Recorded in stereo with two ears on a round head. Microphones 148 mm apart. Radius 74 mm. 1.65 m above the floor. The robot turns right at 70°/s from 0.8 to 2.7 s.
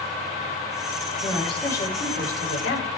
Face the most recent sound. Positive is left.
turn(degrees=85)